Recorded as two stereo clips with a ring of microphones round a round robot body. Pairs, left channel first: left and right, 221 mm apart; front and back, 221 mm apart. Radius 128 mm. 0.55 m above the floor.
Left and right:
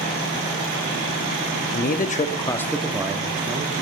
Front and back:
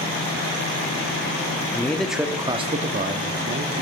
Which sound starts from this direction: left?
A man speaking, at 1.7 s.